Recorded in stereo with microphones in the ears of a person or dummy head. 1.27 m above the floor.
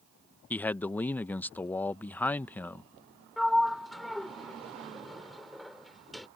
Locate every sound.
0.5 s a man speaking: 10° left (ahead or behind)
3.4 s a sliding door: centre (ahead or behind)